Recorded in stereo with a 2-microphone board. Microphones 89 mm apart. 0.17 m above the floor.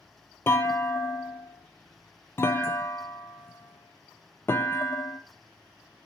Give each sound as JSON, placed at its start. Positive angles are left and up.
{"t": 0.5, "sound": "a clunk", "side_deg": 25, "distance_m": 0.7}